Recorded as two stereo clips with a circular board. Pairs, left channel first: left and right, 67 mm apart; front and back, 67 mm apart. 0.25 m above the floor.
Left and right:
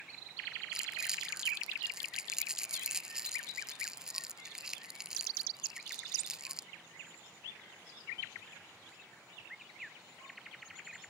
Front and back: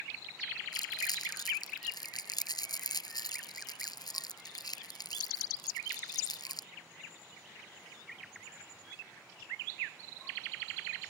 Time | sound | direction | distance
0.7 | crumpling | 10° right | ?